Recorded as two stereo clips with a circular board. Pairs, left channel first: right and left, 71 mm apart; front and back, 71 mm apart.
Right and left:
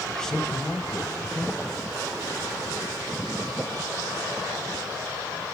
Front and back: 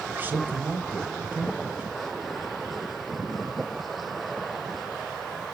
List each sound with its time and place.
0.1 s a man speaking: 160° right, 1.4 m